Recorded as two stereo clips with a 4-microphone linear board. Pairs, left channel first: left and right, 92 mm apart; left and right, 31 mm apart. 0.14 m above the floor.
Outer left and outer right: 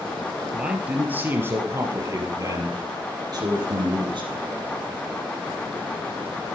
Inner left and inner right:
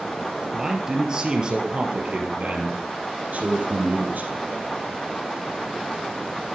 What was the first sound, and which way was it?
A man speaking, 10° right (ahead or behind).